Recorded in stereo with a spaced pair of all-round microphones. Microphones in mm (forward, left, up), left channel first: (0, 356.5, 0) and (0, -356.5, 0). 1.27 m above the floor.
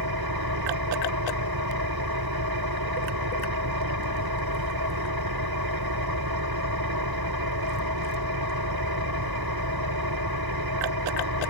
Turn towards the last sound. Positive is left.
turn(degrees=-30)  # may be behind; listen again after turning